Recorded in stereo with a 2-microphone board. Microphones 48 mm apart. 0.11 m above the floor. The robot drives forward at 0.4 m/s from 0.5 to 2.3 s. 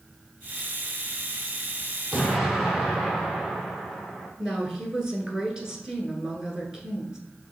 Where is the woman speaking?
10° right (ahead or behind), 1.3 m.